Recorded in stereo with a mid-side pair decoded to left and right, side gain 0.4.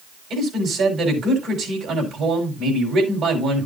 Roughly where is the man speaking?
Right.